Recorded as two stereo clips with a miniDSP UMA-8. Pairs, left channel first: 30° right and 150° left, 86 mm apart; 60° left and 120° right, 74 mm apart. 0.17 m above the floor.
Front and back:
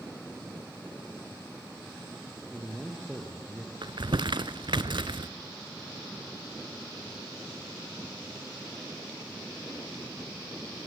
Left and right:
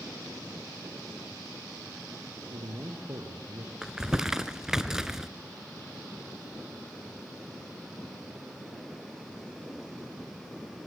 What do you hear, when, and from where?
2.5 s a man speaking: 120° right, 2.5 m; by 3.7 s 140° right, 2.0 m
3.8 s crumpling: 155° left, 0.6 m